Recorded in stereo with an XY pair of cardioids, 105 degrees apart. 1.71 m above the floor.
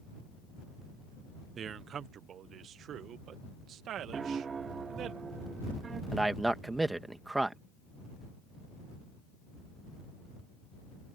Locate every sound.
1.6 s a man speaking: 50° right; by 5.1 s 70° right
4.1 s a piano: 40° right
6.1 s a man speaking: 15° right